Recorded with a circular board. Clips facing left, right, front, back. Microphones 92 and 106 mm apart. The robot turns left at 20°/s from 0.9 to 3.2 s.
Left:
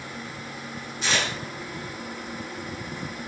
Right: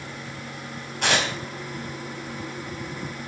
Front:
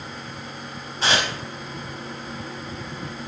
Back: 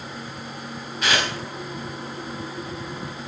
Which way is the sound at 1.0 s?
60° right.